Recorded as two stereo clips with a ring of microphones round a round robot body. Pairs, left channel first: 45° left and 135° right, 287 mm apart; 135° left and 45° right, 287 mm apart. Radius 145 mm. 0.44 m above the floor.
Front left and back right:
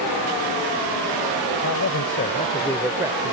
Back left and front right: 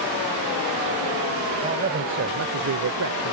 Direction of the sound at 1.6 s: 15° left.